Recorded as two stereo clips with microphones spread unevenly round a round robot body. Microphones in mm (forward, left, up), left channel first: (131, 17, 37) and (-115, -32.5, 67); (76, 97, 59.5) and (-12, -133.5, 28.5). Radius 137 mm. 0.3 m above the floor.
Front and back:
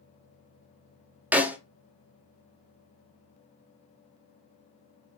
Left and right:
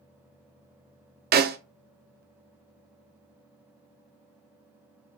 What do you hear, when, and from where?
1.3 s a snare drum: 80° right, 0.5 m